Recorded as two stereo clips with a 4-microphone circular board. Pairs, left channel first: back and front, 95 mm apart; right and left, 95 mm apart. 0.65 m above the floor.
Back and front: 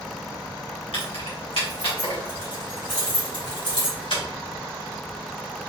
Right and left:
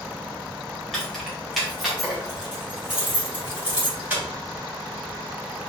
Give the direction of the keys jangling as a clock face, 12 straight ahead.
6 o'clock.